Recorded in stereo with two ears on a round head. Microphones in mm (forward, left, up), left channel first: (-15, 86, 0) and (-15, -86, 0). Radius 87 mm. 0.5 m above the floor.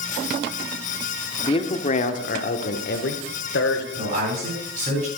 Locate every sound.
1.4 s a man speaking: 25° left (ahead or behind), 1.2 m; by 3.9 s 60° left (ahead or behind), 2 m
4.0 s a man speaking: 45° right (ahead or behind), 9 m